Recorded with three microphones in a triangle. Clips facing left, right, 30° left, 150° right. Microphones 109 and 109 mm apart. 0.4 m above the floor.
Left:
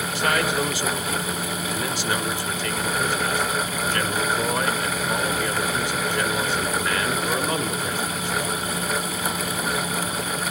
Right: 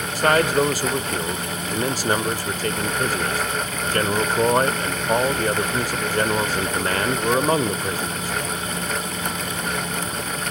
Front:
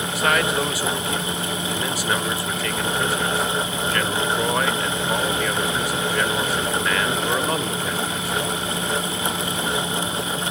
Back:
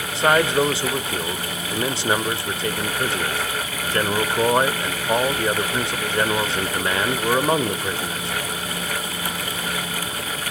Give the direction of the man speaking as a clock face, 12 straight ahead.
3 o'clock.